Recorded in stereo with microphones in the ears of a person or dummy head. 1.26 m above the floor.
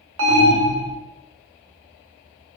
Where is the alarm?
70° right (ahead or behind), 0.7 m.